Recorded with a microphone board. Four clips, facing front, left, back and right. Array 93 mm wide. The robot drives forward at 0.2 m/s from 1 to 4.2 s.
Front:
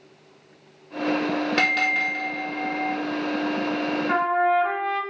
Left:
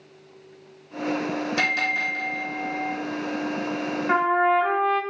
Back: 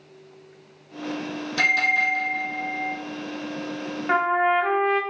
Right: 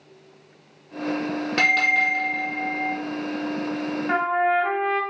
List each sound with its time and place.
1.6 s a bell: 45° right, 2 m; by 3.0 s 50° right, 1.9 m
4.1 s a trumpet: 175° left, 0.8 m